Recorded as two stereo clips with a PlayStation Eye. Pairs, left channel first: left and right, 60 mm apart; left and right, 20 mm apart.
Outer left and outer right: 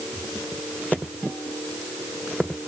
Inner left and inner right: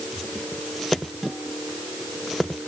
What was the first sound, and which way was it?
Only background noise.